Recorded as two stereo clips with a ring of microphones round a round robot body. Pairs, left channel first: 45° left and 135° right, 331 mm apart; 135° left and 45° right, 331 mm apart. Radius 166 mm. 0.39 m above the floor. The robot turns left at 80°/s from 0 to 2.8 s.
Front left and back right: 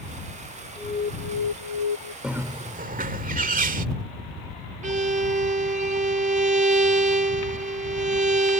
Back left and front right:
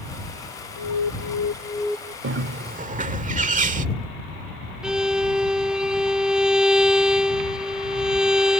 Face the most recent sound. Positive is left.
turn(degrees=-130)